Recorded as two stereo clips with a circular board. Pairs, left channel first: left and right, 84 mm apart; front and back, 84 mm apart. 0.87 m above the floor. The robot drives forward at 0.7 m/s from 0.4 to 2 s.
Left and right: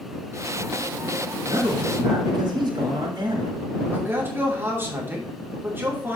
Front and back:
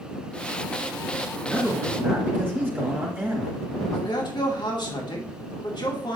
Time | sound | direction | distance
1.4 | a man speaking | 105° right | 2 m
3.9 | a man speaking | 25° right | 2 m